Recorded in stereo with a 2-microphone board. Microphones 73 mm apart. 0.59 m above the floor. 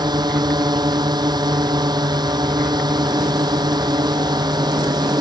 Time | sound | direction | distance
0.0 | a drone | 80° right | ?